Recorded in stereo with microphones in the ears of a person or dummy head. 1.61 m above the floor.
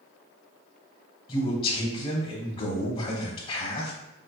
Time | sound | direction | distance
1.3 | a man speaking | 30° left (ahead or behind) | 0.8 m